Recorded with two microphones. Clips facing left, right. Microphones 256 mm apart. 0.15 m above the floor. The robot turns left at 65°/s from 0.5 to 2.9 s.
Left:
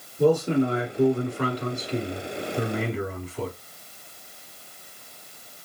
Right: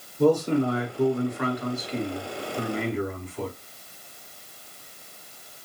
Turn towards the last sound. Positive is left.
turn(degrees=10)